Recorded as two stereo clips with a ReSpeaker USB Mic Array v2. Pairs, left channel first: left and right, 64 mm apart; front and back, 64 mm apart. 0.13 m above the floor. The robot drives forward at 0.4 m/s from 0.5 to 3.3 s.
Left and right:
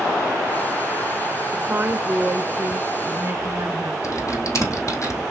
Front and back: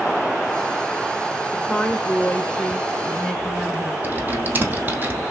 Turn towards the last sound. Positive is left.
turn(degrees=125)